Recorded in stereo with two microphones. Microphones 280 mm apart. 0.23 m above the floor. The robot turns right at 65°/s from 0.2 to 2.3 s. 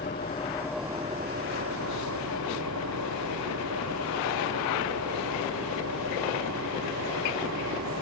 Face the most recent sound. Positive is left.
turn(degrees=-80)